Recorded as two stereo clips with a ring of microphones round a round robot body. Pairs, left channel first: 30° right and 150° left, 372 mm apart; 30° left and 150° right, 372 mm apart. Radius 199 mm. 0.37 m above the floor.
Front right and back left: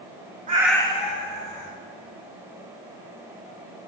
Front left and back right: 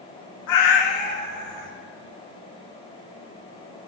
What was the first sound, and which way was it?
A cat meowing, 80° left.